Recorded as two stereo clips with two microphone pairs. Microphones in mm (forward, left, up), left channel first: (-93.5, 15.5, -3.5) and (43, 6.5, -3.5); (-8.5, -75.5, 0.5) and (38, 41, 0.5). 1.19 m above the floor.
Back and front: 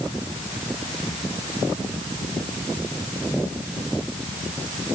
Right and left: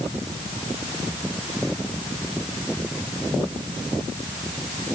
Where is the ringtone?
I don't hear a ringtone.